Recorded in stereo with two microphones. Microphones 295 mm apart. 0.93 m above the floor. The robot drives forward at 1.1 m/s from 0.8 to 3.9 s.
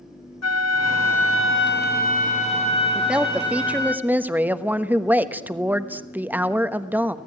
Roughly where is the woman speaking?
Centre.